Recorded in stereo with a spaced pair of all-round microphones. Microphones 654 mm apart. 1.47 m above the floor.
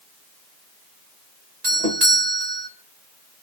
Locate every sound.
1.6 s a doorbell: 70° right (ahead or behind), 3 m